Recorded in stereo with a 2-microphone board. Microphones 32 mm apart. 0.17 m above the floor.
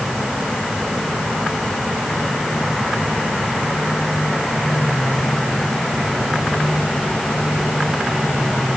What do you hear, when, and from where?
Only background noise.